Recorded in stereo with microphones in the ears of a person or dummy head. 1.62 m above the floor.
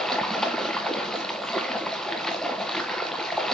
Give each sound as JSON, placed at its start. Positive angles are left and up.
{"t": 0.0, "sound": "running water", "side_deg": 5, "distance_m": 1.1}